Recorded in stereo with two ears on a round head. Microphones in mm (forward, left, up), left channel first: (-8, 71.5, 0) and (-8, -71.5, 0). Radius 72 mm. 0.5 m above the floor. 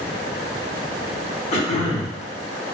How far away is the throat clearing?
About 1.0 m.